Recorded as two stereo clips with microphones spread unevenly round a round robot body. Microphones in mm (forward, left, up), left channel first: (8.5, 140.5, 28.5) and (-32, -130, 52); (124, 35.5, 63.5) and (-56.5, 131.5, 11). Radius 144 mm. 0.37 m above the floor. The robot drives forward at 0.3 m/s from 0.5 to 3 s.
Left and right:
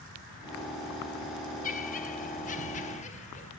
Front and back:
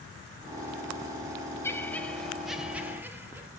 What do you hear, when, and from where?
1.6 s laughter: 65° left, 1.0 m; by 3.5 s 105° left, 1.0 m